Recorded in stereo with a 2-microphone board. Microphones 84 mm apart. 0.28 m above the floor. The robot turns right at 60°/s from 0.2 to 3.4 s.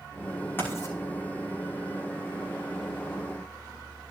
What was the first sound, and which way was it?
Writing, 25° left (ahead or behind).